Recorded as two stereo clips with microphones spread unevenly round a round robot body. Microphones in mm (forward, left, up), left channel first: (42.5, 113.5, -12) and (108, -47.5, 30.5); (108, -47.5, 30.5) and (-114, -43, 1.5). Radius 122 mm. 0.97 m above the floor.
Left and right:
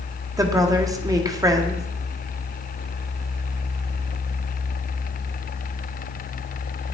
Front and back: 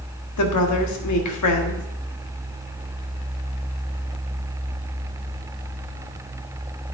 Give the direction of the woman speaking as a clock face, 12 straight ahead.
12 o'clock.